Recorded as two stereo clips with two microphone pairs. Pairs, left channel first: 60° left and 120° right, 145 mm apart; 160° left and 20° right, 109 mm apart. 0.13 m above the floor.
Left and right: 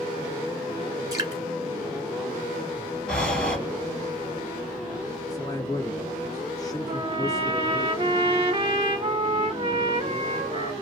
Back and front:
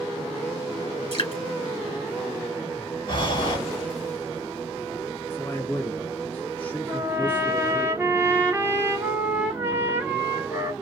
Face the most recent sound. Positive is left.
turn(degrees=-80)